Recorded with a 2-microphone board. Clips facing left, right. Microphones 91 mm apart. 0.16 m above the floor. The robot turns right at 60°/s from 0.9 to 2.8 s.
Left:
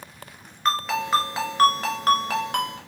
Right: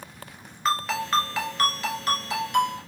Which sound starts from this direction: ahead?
A ringtone, at 0.7 s.